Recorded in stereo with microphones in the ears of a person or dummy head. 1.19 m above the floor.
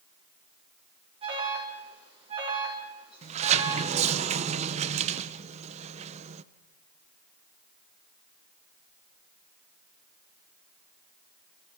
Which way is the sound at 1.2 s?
35° right (ahead or behind).